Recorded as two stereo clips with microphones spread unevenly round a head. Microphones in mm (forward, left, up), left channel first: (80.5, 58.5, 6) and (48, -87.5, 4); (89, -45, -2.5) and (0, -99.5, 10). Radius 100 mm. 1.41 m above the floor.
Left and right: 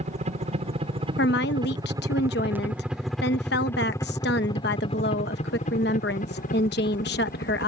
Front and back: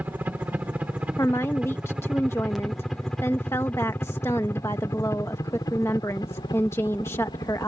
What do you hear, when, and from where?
0.0 s a helicopter: 75° right; by 7.7 s 90° left
1.2 s a woman speaking: 110° left